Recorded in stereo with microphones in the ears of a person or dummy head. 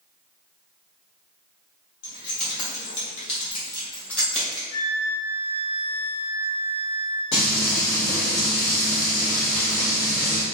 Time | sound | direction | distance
2.0 | keys jangling | 60° left (ahead or behind) | 1.5 m
4.7 | a flute | 60° left (ahead or behind) | 1.2 m
7.3 | frying | 75° left (ahead or behind) | 1.2 m